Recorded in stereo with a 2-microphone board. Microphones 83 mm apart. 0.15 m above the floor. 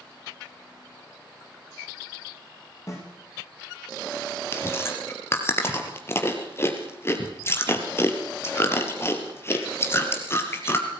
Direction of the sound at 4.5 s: 30° left (ahead or behind).